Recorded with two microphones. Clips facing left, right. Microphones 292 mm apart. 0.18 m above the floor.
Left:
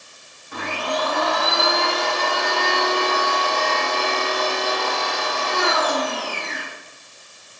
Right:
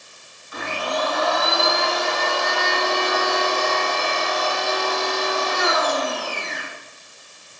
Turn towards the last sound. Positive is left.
turn(degrees=60)  # may be behind; listen again after turning